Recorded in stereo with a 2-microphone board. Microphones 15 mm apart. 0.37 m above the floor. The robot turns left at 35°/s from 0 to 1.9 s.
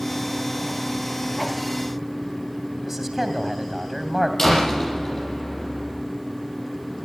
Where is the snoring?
No snoring in this recording.